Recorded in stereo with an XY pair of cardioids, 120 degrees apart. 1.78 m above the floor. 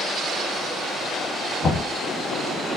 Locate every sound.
1.6 s knocking: 50° left, 1.5 m